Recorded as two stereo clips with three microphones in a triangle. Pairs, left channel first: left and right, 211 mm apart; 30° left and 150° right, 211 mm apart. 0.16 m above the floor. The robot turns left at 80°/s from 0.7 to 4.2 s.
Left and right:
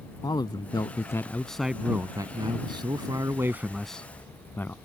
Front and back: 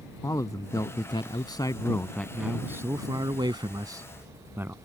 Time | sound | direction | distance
0.2 | a man speaking | 70° left | ?